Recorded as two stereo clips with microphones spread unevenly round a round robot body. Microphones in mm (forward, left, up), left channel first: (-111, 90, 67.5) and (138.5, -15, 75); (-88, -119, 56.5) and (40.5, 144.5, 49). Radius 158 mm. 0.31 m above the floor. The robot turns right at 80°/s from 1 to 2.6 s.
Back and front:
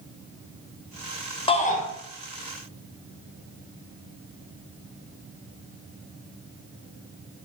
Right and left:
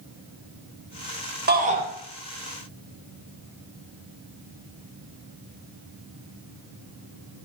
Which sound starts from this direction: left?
A shout, at 1.5 s.